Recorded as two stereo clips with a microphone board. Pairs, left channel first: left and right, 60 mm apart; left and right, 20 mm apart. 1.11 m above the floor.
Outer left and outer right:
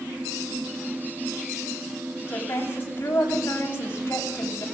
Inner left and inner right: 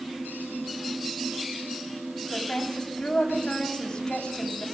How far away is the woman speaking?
About 8 m.